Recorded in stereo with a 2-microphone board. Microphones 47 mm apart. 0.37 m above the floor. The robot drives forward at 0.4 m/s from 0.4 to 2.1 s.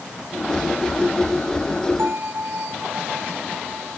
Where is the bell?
55° right (ahead or behind).